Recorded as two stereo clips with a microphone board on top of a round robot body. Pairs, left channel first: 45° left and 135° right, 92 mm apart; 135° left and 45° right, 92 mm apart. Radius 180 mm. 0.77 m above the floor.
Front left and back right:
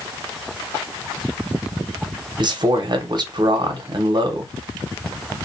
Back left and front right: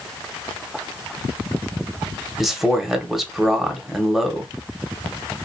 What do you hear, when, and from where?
2.4 s a man speaking: 130° right, 1.0 m